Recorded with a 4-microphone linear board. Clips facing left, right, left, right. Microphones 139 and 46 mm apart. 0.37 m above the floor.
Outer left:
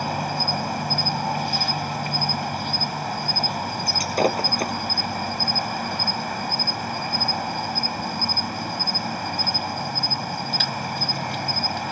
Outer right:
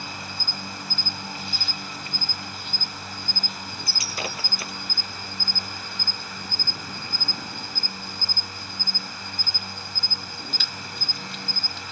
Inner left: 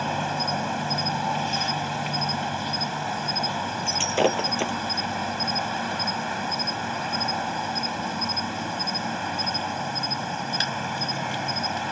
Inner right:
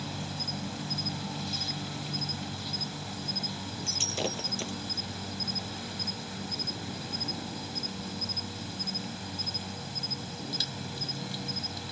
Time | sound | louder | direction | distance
0.0 | an insect | outer left 12 dB, inner left 12 dB | 60° left (ahead or behind) | ?
3.9 | breaking glass | outer left 13 dB, inner left 12 dB | 45° left (ahead or behind) | ?